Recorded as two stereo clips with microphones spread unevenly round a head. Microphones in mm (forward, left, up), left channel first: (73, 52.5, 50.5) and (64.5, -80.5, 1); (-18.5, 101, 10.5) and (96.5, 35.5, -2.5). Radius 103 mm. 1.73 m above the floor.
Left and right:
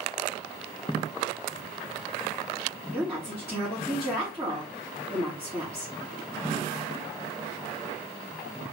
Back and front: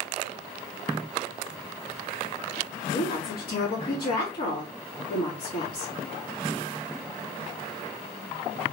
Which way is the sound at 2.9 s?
175° right.